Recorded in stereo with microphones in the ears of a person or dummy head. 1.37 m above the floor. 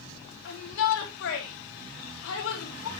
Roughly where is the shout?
Left.